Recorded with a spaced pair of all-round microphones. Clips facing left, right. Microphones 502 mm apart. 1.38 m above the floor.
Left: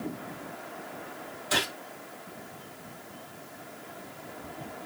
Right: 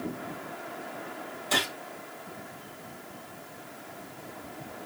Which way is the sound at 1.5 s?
30° left (ahead or behind).